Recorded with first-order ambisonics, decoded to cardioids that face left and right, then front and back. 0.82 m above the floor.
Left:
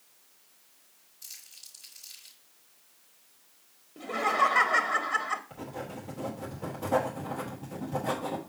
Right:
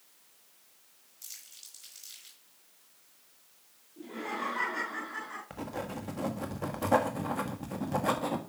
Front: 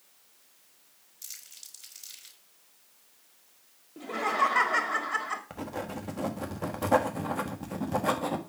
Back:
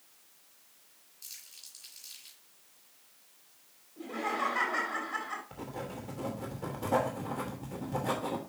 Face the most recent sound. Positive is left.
turn(degrees=-35)